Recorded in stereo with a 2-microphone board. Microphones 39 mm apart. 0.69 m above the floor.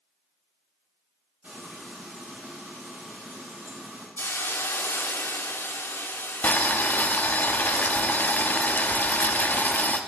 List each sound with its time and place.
1.4 s frying: 40° right (ahead or behind), 4.5 m
4.2 s a hiss: 85° left, 0.5 m
6.4 s boiling: 45° left (ahead or behind), 0.6 m